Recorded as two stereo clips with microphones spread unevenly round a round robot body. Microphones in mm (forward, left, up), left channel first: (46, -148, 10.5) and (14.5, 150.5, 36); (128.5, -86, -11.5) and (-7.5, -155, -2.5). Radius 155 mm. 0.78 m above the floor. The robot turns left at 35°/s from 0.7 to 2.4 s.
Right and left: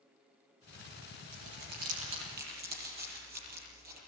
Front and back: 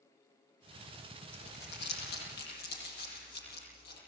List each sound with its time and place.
1.3 s crumpling: 75° left, 8.5 m; by 4.0 s 35° left, 8.5 m